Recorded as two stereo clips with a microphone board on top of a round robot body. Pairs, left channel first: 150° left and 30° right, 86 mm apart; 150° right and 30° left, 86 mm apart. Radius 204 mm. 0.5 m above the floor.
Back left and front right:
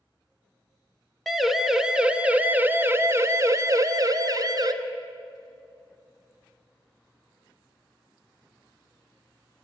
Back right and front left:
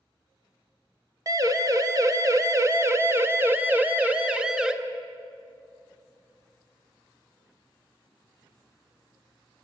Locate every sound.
1.3 s a siren: 60° left, 2 m; by 4.7 s 45° right, 2 m